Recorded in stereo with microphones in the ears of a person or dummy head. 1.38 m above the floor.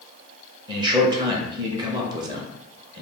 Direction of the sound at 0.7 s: 25° right (ahead or behind).